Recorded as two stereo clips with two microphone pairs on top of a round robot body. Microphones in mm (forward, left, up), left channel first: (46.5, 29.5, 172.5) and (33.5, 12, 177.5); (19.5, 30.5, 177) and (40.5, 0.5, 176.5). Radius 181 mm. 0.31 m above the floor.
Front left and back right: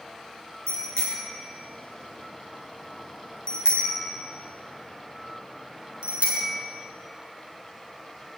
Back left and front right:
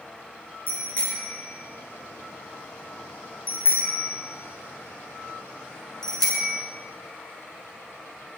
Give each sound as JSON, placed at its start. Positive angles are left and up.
{"t": 0.7, "sound": "a bicycle bell", "azimuth_deg": 75, "distance_m": 6.5}